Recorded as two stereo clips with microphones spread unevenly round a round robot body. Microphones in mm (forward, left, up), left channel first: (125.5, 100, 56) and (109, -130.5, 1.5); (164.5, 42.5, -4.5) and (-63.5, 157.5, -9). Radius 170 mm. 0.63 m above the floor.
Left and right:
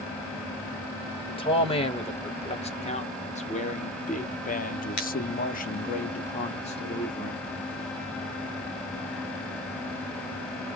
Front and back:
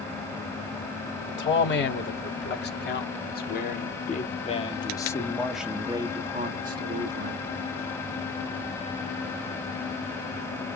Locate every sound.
1.3 s a man speaking: 15° left, 3 m; by 7.5 s 165° left, 1.5 m